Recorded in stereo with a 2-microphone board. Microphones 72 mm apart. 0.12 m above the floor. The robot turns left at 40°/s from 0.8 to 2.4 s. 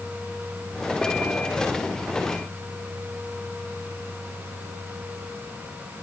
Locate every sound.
Only background noise.